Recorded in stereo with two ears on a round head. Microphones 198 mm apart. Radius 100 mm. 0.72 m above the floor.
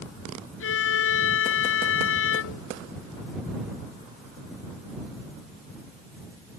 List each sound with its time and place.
0.6 s a violin: 70° left (ahead or behind)